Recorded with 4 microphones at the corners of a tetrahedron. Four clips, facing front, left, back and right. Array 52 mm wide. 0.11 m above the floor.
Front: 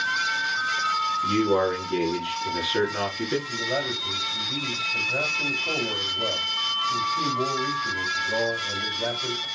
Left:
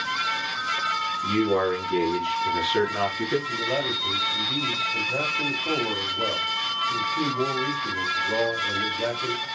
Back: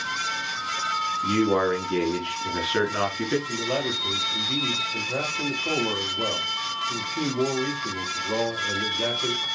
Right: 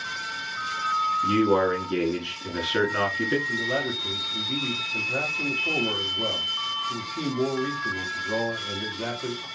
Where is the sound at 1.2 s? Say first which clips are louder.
Even, back 1 dB; 145° right, 1.6 m.